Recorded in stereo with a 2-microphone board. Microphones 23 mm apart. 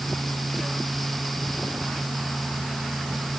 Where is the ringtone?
I don't hear a ringtone.